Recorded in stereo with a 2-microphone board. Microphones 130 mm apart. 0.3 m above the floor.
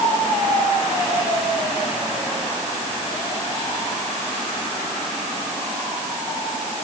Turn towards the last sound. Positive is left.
No sound to turn to.